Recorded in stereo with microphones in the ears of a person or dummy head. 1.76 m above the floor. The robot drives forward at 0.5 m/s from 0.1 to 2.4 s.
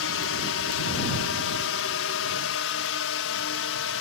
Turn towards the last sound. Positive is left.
turn(degrees=65)  # may be behind; listen again after turning